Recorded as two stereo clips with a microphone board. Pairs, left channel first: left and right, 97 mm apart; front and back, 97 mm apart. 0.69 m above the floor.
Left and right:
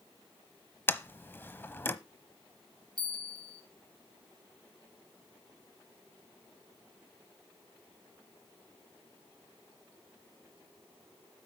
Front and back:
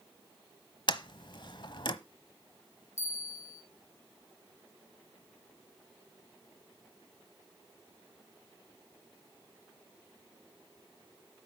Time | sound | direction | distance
0.9 | a sliding door | 25° left | 0.9 m
3.0 | a bell | 60° left | 2 m